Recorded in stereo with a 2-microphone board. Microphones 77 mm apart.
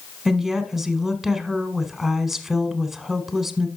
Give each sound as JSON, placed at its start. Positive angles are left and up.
{"t": 0.2, "sound": "a woman speaking", "side_deg": -5, "distance_m": 1.2}